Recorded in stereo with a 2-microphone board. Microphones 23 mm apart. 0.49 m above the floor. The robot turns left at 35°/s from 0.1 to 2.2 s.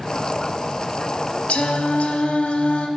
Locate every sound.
1.5 s singing: 65° left (ahead or behind), 0.6 m; by 2.9 s 80° left, 0.6 m